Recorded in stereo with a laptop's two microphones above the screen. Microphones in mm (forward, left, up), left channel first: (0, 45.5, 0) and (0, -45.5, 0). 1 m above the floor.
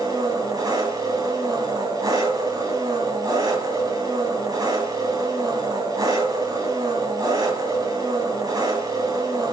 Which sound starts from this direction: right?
An engine running, at 0.0 s.